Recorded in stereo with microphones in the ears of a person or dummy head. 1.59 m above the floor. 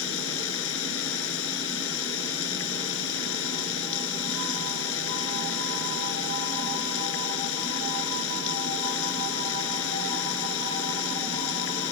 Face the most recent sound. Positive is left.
turn(degrees=85)